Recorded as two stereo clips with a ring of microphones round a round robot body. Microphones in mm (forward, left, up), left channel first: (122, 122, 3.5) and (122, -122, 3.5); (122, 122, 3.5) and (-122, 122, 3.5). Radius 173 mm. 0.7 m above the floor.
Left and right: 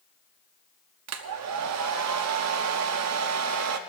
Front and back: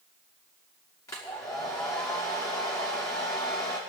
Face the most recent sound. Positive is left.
turn(degrees=-80)